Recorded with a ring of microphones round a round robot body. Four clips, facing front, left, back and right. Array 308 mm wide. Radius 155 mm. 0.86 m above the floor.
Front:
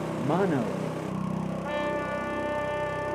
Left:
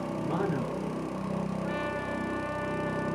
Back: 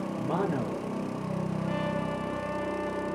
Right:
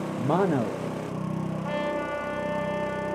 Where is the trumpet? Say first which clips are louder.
Right 4 dB, front 3 dB; 45° right, 4 m.